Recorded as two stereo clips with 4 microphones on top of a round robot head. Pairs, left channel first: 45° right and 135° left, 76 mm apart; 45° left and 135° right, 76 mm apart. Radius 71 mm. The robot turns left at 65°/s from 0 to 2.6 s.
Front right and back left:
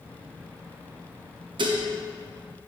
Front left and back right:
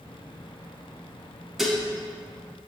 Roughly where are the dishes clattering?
Behind left.